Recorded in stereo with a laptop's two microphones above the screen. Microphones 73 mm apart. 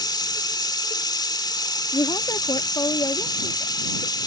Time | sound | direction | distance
0.0 | running water | 80° left | ?
1.9 | a woman speaking | 75° left (ahead or behind) | ?